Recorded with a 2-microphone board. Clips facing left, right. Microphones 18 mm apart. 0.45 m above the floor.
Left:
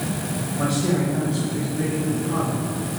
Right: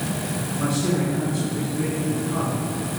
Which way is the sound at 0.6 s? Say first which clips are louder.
Left 1 dB; 55° left (ahead or behind).